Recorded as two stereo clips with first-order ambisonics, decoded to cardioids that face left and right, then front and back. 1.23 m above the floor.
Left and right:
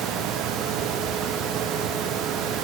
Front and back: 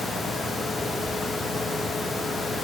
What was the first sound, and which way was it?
Only background noise.